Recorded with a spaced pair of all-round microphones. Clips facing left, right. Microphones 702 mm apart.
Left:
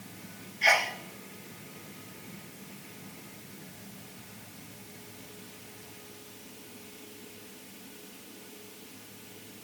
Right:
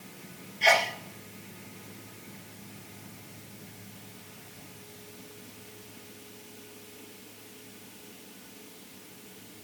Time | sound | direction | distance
0.6 | a sneeze | 60° right (ahead or behind) | 1.1 m